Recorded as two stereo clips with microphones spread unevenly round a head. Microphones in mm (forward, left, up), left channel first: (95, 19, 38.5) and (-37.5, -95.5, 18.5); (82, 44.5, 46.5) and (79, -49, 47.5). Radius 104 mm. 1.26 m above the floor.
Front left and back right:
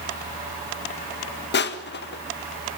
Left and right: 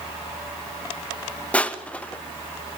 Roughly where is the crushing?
Ahead.